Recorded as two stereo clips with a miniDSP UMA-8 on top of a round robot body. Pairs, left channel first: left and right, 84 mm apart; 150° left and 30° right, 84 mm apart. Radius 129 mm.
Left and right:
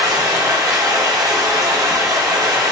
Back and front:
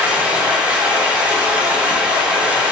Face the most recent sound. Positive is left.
turn(degrees=-100)